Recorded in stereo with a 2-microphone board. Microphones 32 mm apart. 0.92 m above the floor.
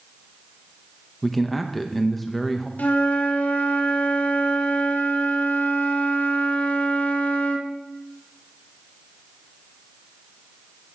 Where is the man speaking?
5° left (ahead or behind), 1.0 m.